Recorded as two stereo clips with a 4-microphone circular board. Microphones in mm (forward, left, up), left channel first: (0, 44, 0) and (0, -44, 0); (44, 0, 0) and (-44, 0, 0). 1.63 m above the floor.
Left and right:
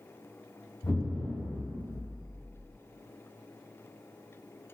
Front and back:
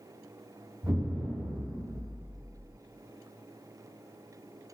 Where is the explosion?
130° left, 1.8 m.